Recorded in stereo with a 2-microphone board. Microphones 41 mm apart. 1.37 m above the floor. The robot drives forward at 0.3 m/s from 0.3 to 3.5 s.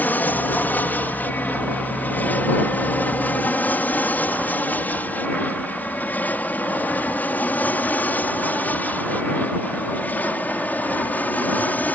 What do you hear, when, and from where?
0.0 s an aircraft: 45° left (ahead or behind)